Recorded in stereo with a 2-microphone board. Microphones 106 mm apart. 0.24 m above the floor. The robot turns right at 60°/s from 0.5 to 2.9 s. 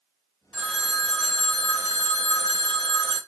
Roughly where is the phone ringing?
Ahead.